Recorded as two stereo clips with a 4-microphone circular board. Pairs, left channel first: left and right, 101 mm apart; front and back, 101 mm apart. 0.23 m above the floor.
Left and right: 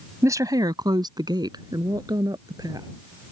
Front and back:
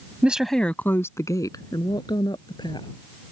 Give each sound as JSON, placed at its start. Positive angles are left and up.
{"t": 0.2, "sound": "a woman speaking", "azimuth_deg": -115}